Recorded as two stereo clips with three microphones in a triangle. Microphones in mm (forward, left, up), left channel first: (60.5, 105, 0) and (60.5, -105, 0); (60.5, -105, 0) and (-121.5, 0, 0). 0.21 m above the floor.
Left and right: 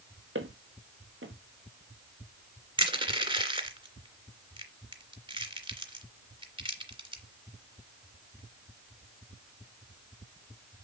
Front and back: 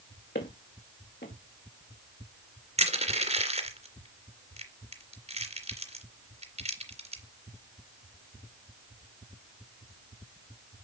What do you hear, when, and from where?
0.3 s footsteps: 70° right, 3.5 m
2.8 s crushing: 155° right, 2.5 m